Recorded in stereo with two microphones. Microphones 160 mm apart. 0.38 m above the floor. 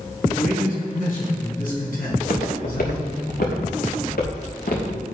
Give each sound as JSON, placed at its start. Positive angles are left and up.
{"t": 0.2, "sound": "a man speaking", "side_deg": 70, "distance_m": 4.5}
{"t": 2.1, "sound": "footsteps", "side_deg": 75, "distance_m": 2.0}